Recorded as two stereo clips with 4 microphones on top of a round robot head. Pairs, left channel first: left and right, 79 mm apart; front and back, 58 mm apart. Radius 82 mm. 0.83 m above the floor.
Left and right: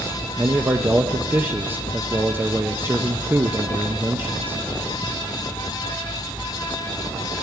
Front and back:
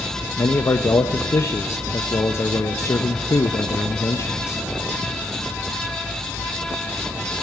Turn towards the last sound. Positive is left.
turn(degrees=-30)